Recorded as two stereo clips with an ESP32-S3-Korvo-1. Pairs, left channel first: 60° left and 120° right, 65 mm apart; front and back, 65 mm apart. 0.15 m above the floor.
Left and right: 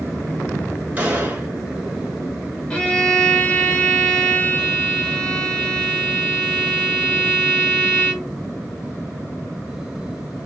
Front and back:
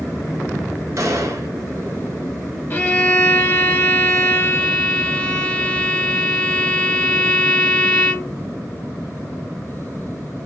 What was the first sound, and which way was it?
A gunshot, straight behind.